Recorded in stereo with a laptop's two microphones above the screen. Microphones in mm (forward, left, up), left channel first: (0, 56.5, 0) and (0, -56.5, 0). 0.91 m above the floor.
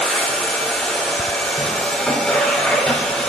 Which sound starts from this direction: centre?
A machine running, at 0.0 s.